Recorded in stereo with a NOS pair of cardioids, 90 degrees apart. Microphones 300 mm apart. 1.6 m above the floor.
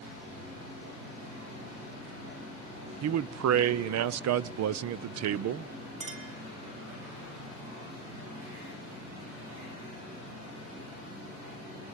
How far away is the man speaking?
About 0.7 m.